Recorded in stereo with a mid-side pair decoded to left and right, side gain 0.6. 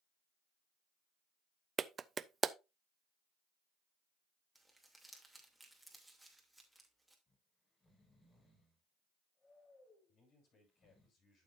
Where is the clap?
30° right, 0.5 m.